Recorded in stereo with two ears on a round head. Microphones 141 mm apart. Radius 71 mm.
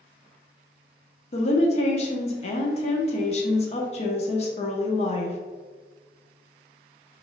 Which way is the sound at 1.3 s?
45° left (ahead or behind).